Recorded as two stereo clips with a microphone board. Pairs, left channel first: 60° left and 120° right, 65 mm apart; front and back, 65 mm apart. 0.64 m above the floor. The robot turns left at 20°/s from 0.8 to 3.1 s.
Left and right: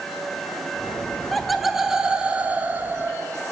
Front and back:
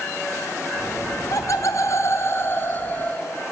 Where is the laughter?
30° right, 3 m; by 3.2 s 65° right, 3 m.